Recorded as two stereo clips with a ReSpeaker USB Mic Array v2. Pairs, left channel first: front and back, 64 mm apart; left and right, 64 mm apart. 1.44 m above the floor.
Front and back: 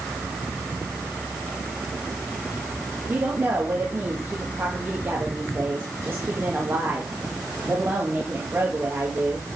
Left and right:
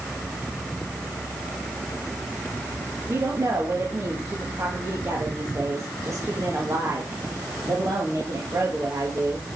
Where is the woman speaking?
125° right, 2.0 m.